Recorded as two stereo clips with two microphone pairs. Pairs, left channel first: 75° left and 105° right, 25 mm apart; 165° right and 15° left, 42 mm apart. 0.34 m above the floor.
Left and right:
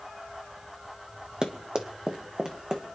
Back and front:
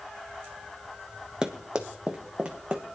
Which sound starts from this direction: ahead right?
Running footsteps, at 1.4 s.